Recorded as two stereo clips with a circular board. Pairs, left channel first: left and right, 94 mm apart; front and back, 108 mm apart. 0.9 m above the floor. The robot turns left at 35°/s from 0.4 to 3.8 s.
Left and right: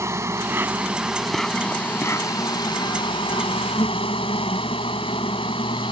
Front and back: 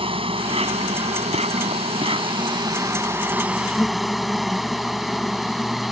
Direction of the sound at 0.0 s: 150° right.